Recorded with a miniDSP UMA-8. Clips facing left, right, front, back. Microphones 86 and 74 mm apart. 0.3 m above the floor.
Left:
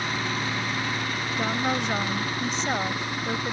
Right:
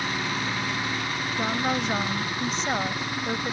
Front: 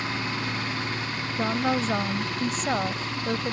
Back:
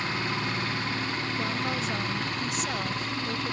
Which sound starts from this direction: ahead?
A woman speaking, at 1.4 s.